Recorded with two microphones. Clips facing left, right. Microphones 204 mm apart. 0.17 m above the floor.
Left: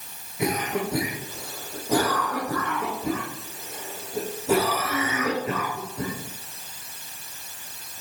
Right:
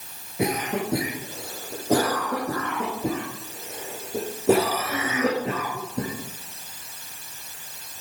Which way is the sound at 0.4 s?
70° right (ahead or behind).